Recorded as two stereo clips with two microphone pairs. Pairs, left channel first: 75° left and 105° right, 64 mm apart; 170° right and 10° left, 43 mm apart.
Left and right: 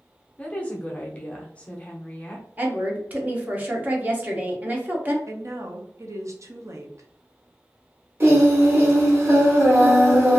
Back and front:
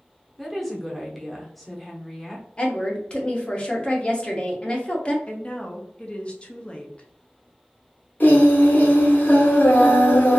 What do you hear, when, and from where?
0.4 s a woman speaking: 110° left, 0.7 m
2.6 s a woman speaking: 140° right, 0.8 m
5.3 s a woman speaking: 115° right, 0.6 m
8.2 s singing: 140° right, 0.9 m